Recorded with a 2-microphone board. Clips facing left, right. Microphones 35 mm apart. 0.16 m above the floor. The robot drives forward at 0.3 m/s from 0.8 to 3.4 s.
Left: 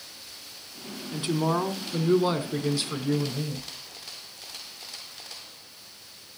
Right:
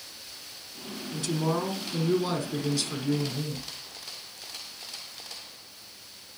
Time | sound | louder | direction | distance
1.1 | a woman speaking | left 3 dB | 25° left (ahead or behind) | 1.2 m